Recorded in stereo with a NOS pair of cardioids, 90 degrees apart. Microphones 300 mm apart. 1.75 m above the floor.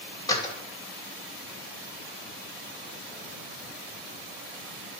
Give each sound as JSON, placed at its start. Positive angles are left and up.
{"t": 0.3, "sound": "a door slam", "azimuth_deg": 15, "distance_m": 2.5}